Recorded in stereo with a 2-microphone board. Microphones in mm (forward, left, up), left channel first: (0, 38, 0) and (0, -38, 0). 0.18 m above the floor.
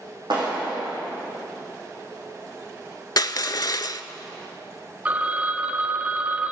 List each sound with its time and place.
0.3 s a clap: 80° right, 7 m
3.2 s crushing: 60° left (ahead or behind), 0.5 m
5.0 s a phone ringing: 20° right (ahead or behind), 0.8 m